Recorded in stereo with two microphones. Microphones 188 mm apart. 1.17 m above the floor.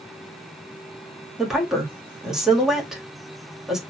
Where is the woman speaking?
5° right (ahead or behind), 2.0 m.